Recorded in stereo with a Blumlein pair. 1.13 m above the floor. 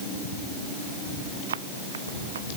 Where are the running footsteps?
65° right.